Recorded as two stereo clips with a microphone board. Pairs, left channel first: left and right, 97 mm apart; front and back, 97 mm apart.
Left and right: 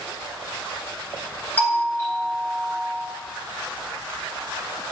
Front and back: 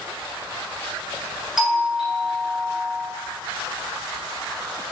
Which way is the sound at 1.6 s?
105° left.